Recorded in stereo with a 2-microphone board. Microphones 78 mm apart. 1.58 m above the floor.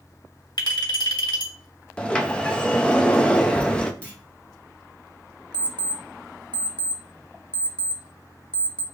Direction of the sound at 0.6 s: 65° left (ahead or behind).